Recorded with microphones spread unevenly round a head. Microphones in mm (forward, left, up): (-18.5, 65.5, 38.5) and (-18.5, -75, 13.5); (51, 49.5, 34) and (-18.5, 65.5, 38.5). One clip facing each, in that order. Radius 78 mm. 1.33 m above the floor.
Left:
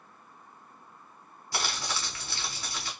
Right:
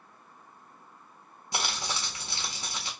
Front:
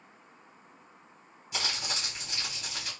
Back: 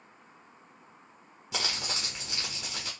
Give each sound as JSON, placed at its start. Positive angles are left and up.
{"t": 1.5, "sound": "crumpling", "azimuth_deg": -160, "distance_m": 1.3}